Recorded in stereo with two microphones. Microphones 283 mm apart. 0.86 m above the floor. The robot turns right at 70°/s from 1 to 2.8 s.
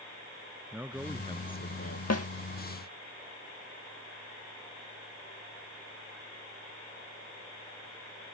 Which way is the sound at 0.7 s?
5° right.